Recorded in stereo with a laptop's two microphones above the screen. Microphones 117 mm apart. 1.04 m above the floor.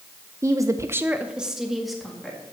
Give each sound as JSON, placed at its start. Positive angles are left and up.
{"t": 0.4, "sound": "a woman speaking", "side_deg": -25, "distance_m": 0.6}